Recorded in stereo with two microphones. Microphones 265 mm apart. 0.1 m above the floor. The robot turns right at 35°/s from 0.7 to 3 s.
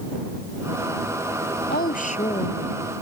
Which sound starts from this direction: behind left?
A woman speaking, at 1.7 s.